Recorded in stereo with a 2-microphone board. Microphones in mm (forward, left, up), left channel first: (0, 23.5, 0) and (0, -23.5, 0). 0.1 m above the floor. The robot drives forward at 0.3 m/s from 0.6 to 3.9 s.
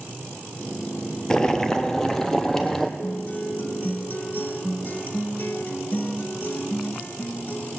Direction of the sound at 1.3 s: 15° left (ahead or behind).